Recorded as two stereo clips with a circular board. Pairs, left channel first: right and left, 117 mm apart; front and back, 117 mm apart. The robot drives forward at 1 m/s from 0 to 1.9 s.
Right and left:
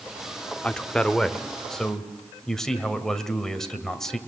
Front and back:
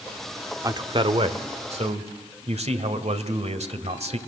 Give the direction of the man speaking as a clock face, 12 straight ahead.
5 o'clock.